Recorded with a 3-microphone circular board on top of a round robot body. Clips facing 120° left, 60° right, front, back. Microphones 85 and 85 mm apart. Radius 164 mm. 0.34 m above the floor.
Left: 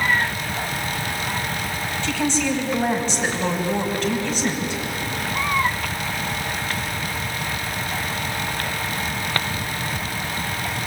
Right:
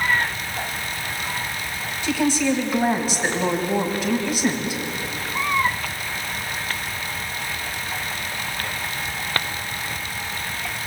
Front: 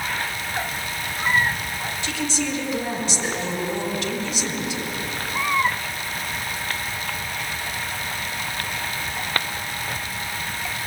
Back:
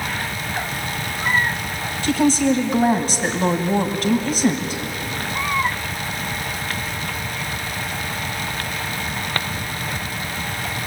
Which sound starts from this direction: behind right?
A woman speaking, at 2.0 s.